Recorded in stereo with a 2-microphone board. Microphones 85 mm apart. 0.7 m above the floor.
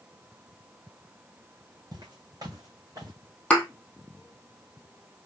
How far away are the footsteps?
About 1.7 m.